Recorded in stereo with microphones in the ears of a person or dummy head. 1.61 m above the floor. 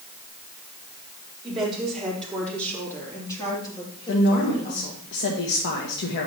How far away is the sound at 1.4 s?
About 4.5 m.